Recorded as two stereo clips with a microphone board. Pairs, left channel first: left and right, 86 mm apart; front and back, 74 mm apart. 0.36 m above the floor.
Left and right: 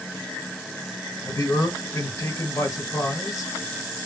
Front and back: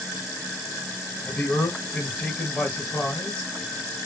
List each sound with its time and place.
1.2 s a man speaking: 70° left, 2.0 m